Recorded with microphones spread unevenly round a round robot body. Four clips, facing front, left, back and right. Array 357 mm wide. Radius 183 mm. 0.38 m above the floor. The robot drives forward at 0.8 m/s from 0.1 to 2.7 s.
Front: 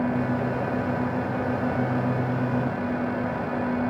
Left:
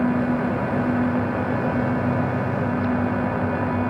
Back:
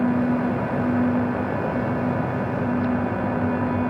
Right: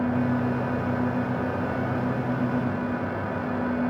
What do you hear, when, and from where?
Only background noise.